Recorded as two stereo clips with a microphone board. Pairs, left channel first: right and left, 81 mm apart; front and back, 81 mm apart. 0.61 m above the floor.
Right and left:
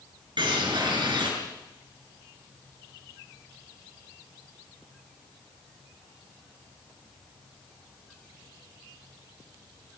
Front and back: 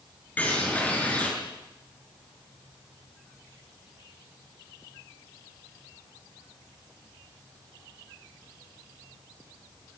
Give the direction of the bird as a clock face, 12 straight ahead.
10 o'clock.